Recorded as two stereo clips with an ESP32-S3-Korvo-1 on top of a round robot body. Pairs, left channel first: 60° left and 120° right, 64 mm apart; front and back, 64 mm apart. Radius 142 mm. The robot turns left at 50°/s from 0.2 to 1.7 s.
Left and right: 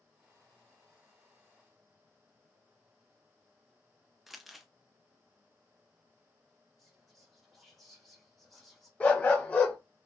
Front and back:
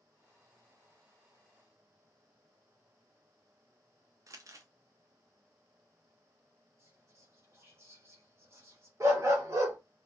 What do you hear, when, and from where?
4.3 s crumpling: 155° left, 0.6 m
6.8 s whispering: 150° left, 1.6 m
9.0 s a dog barking: 130° left, 0.6 m